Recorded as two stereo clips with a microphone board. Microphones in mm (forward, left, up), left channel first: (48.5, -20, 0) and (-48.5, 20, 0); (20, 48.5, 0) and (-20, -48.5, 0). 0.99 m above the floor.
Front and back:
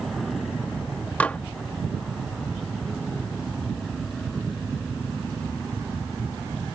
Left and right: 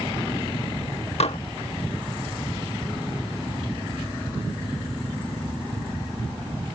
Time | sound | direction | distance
1.2 | dishes clattering | 55° left | ?